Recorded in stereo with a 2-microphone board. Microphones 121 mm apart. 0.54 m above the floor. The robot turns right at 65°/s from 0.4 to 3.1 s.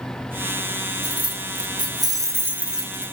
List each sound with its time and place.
1.0 s keys jangling: 125° right, 0.6 m; by 3.1 s 10° left, 0.6 m